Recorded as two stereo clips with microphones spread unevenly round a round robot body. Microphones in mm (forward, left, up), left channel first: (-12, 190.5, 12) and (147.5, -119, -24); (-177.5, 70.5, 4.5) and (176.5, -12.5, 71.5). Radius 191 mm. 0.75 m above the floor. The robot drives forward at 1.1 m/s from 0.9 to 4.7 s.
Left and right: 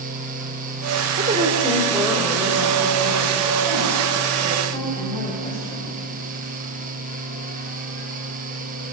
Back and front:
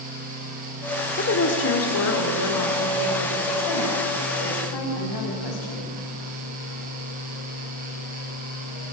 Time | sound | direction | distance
1.2 | a woman speaking | 130° right | 2 m